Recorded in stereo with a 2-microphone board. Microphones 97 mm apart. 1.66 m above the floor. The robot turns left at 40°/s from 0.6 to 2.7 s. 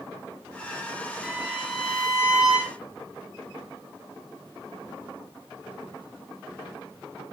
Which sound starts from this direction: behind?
A violin, at 1.2 s.